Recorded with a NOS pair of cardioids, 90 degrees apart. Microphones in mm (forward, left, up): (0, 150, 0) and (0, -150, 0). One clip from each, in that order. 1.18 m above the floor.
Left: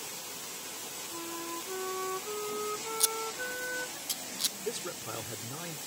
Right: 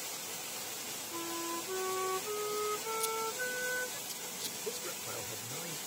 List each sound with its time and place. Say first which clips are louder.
1.1 s a flute: right 1 dB; 5° right
3.0 s scissors: left 2 dB; 55° left
4.6 s a man speaking: left 3 dB; 35° left